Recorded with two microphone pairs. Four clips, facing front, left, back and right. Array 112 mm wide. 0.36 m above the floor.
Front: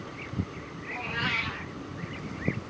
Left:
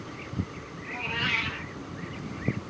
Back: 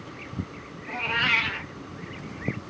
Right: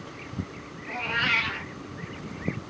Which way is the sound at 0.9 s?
145° right.